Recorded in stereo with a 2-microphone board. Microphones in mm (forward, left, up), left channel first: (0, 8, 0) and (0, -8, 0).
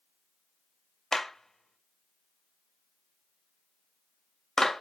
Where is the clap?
40° left (ahead or behind), 2 m.